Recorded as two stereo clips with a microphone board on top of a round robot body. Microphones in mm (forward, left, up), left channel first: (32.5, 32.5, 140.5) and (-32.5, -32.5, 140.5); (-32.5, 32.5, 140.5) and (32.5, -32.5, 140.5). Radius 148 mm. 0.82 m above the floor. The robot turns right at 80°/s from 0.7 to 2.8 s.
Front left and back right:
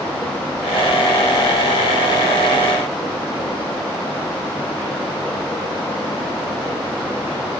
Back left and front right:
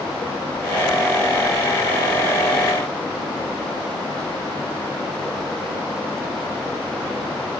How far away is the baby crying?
No baby crying in this recording.